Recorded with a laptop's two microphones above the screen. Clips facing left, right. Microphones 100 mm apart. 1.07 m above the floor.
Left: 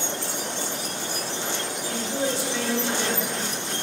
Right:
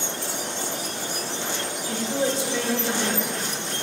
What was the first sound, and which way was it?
A woman speaking, 25° right (ahead or behind).